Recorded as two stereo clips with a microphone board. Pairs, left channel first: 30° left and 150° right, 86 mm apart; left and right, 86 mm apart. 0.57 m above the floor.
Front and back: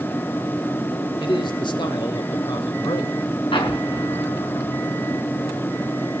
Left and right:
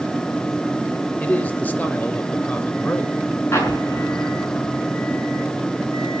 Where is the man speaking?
20° left, 2.5 m.